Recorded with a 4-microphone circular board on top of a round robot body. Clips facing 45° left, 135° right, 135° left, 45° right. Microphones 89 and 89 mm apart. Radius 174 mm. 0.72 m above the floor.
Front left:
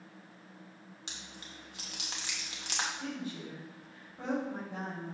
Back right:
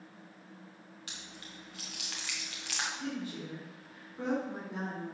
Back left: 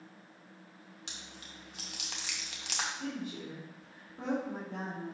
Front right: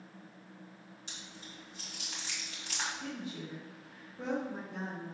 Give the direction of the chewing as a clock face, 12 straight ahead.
8 o'clock.